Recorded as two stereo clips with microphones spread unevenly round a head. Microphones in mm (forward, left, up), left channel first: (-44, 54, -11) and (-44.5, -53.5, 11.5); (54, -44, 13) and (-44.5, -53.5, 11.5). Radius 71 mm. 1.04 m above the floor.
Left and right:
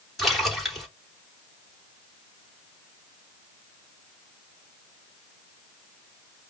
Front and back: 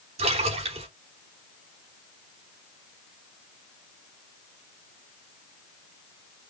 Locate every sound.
0.2 s a splash: straight behind, 3 m